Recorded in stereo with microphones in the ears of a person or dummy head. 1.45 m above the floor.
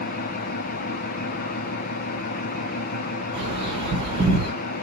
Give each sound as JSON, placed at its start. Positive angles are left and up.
{"t": 0.0, "sound": "an engine running", "side_deg": 50, "distance_m": 0.9}
{"t": 3.3, "sound": "a bird", "side_deg": -35, "distance_m": 4.0}